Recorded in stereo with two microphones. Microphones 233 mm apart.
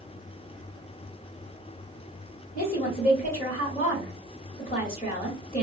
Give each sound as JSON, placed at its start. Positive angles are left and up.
{"t": 2.5, "sound": "a woman speaking", "side_deg": 40, "distance_m": 1.7}